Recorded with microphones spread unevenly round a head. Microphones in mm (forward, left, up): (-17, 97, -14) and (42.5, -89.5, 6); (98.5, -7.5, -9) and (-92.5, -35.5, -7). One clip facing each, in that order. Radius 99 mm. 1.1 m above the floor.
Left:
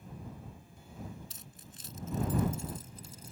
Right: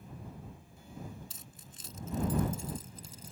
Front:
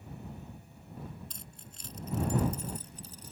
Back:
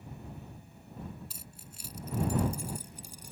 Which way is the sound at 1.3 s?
90° right.